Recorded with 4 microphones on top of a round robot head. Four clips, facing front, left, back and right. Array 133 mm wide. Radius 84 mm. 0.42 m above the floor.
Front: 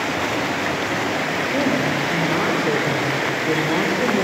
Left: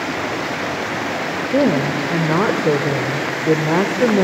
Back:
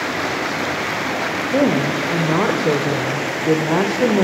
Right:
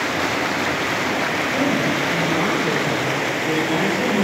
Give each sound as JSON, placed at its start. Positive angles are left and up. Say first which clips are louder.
{"t": 1.5, "sound": "a woman speaking", "louder": "left 6 dB, back 5 dB", "azimuth_deg": 120, "distance_m": 2.0}